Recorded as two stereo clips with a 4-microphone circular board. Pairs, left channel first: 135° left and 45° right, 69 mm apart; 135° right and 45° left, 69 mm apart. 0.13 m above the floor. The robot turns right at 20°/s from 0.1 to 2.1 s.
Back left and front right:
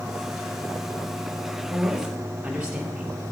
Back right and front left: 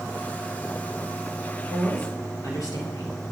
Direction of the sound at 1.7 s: 125° right.